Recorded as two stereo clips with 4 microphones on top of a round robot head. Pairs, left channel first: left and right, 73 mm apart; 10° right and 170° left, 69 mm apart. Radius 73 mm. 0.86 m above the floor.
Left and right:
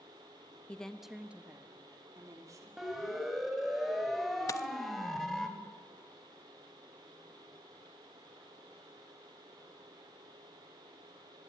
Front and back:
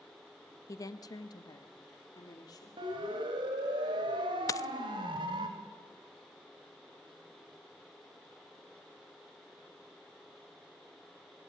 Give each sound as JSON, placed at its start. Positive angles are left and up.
{"t": 0.7, "sound": "a woman speaking", "azimuth_deg": 20, "distance_m": 1.2}
{"t": 2.8, "sound": "a siren", "azimuth_deg": -175, "distance_m": 4.5}
{"t": 4.5, "sound": "a dropped coin", "azimuth_deg": 35, "distance_m": 0.5}